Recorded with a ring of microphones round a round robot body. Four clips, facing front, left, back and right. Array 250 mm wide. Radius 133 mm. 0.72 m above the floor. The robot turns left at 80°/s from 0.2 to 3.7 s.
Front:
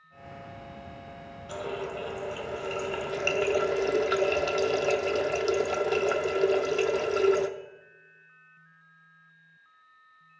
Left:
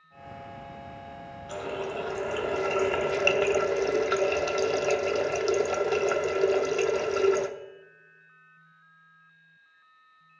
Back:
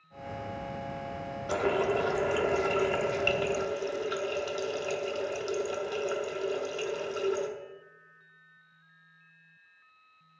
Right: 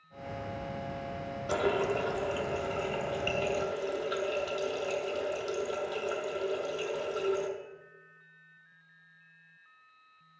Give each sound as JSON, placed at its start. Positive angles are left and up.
{"t": 1.5, "sound": "a running tap", "azimuth_deg": -135, "distance_m": 0.9}